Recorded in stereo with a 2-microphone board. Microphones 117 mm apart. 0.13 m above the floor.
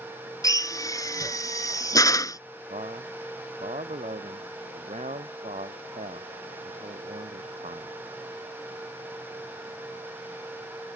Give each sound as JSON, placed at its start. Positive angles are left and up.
{"t": 0.4, "sound": "a drill", "side_deg": 30}
{"t": 2.7, "sound": "a man speaking", "side_deg": -80}